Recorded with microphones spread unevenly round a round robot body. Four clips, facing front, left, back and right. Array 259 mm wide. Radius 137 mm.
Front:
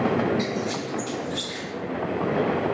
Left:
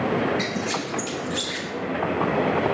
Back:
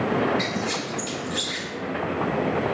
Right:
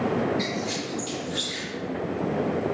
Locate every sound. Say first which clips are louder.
0.4 s a squeak: left 2 dB, front 1 dB; 95° left, 1.0 m